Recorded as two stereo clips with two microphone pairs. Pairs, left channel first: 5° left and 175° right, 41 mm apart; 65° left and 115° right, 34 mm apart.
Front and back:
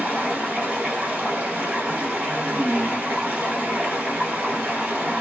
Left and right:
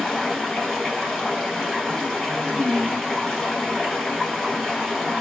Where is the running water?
150° left, 1.3 m.